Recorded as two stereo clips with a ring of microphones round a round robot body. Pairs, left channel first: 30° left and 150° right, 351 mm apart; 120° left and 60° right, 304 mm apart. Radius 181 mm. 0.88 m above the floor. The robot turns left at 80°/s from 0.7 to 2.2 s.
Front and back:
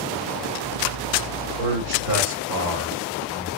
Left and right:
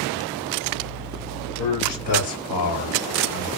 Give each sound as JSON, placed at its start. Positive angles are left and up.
{"t": 1.6, "sound": "a man speaking", "azimuth_deg": -155, "distance_m": 1.1}